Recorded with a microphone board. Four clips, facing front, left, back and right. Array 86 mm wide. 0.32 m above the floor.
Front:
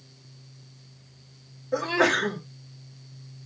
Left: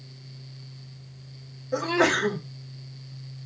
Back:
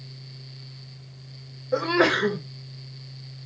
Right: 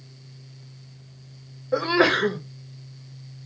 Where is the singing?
I don't hear singing.